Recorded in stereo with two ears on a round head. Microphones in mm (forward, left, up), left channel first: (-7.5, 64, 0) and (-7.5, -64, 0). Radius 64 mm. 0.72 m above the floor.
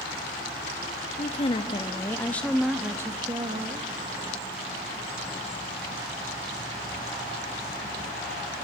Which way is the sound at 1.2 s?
40° left (ahead or behind).